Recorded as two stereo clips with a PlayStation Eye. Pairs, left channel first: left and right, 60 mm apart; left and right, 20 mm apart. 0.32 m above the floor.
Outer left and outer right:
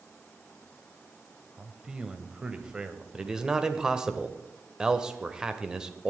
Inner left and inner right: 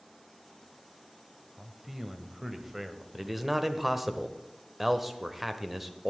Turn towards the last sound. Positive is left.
turn(degrees=-10)  # may be behind; listen again after turning